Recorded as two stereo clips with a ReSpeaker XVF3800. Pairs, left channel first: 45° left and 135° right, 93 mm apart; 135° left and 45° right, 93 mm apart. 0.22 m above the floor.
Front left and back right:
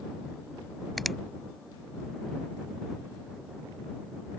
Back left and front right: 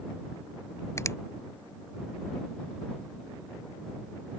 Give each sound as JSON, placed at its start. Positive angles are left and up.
{"t": 1.0, "sound": "a finger snap", "azimuth_deg": 135}